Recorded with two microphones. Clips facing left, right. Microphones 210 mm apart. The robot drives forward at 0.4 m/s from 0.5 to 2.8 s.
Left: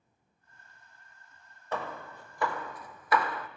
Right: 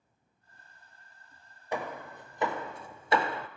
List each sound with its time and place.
1.7 s hammering: 15° right (ahead or behind), 0.9 m; by 3.5 s 25° right (ahead or behind), 0.5 m